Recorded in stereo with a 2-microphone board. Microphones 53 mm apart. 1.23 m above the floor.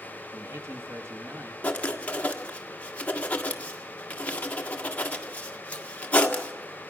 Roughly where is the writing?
Left.